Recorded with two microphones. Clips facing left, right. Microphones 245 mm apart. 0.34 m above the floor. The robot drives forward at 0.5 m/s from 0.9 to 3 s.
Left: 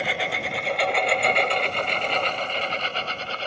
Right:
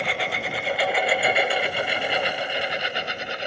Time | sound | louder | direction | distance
0.0 | a lawn mower | even | centre (ahead or behind) | ?